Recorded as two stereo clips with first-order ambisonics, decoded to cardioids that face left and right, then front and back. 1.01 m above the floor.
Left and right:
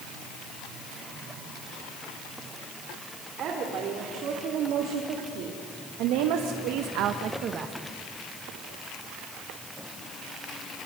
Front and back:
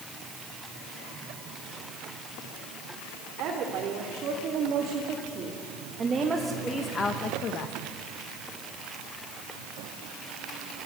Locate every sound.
3.4 s a woman speaking: 140° right, 3.5 m; by 7.8 s 30° right, 1.2 m